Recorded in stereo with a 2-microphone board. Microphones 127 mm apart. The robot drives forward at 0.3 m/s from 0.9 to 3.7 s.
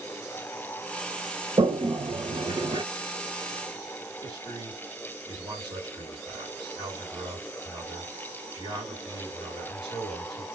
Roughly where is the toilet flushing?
Right.